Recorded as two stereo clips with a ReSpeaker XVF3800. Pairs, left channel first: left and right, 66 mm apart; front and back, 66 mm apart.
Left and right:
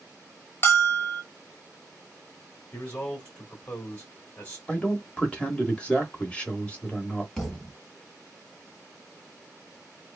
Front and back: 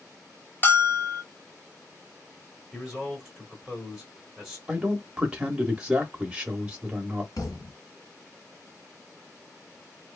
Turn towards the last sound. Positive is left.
turn(degrees=5)